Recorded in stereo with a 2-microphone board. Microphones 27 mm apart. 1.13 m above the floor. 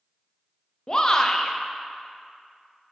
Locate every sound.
0.9 s a shout: 30° left (ahead or behind), 0.7 m